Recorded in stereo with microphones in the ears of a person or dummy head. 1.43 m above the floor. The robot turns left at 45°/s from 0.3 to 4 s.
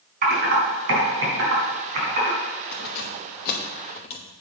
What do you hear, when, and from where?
0.2 s typing on a keyboard: 45° right (ahead or behind), 3.5 m; by 2.4 s 35° right (ahead or behind), 3.5 m
2.7 s keys jangling: 40° left (ahead or behind), 0.9 m